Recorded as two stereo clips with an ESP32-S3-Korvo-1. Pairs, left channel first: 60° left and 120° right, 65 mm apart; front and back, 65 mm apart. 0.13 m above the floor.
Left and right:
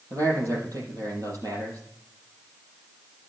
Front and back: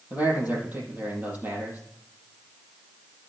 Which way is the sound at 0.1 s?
120° right.